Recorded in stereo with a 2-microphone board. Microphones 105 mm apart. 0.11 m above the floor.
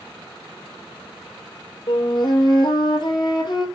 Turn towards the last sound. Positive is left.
turn(degrees=50)  # may be behind; listen again after turning